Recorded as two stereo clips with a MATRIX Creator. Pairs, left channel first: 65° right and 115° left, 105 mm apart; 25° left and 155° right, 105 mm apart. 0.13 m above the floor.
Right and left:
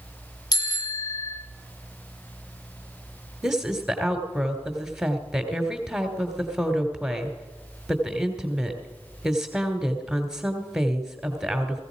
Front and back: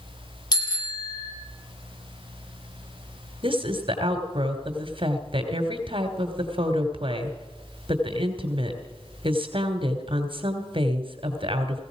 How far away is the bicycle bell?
About 2.5 m.